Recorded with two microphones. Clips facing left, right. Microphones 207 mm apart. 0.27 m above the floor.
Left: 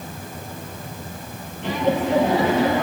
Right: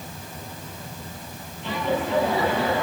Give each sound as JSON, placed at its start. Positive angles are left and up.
{"t": 1.6, "sound": "laughter", "side_deg": 75, "distance_m": 7.0}